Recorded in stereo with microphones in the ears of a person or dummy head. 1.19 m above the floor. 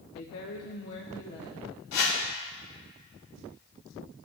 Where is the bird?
I don't hear a bird.